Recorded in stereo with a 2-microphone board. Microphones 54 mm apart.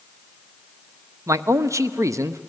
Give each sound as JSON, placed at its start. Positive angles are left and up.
{"t": 1.3, "sound": "a man speaking", "side_deg": -65, "distance_m": 0.6}